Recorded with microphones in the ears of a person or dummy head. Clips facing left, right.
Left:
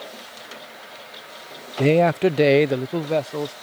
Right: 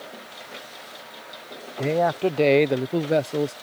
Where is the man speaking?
45° left (ahead or behind); by 3.5 s 20° right (ahead or behind).